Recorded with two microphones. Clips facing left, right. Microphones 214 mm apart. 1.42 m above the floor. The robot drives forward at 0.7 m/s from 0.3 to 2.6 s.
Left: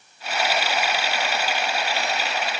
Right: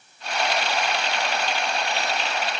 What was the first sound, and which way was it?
Only background noise.